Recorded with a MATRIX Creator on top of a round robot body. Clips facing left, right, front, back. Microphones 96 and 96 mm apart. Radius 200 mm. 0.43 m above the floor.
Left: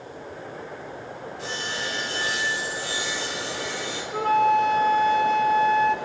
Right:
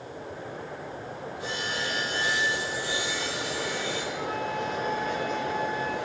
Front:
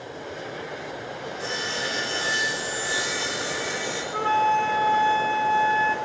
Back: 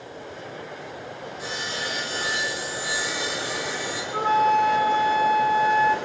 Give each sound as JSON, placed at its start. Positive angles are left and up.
{"t": 1.4, "sound": "sawing", "azimuth_deg": 100, "distance_m": 9.0}
{"t": 4.1, "sound": "a flute", "azimuth_deg": 100, "distance_m": 1.5}